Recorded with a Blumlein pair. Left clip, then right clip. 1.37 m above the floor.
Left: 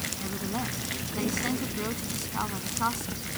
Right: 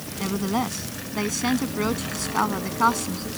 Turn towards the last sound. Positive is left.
turn(degrees=-65)